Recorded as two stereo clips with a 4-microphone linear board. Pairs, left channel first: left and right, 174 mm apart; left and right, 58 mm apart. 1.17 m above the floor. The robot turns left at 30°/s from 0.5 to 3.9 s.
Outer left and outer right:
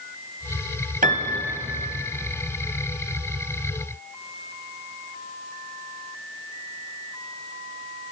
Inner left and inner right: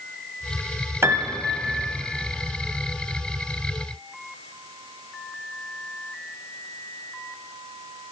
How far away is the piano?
About 0.6 m.